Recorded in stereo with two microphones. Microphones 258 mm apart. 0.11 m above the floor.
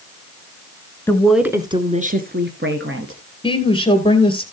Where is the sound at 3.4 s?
20° left (ahead or behind), 2 m.